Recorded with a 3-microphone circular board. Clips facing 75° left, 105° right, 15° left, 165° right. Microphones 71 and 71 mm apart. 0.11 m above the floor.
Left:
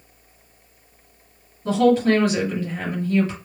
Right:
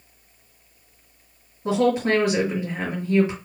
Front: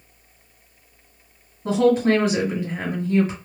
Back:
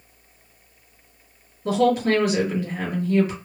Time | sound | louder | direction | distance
1.6 | a woman speaking | left 3 dB, front 2 dB | 40° right | 2.5 m